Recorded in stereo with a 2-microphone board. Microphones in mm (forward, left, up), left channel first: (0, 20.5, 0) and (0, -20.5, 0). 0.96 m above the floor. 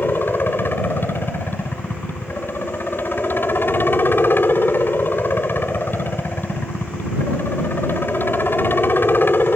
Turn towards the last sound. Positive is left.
turn(degrees=60)  # may be behind; listen again after turning